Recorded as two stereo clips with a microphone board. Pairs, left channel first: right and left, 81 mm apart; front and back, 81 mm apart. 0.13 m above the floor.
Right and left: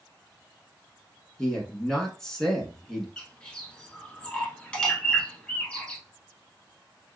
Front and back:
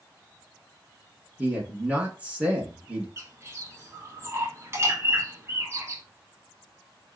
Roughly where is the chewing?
I don't hear chewing.